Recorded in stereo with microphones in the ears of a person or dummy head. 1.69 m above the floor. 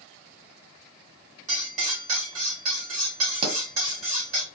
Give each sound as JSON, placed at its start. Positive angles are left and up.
{"t": 1.5, "sound": "cutlery clinking", "side_deg": -30, "distance_m": 1.6}
{"t": 3.4, "sound": "a pop", "side_deg": -40, "distance_m": 1.6}